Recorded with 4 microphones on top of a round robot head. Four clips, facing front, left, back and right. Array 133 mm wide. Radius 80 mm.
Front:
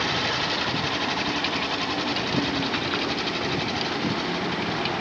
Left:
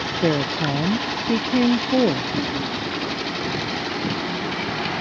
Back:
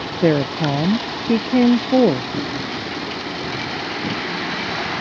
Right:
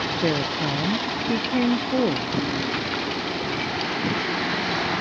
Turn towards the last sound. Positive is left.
turn(degrees=170)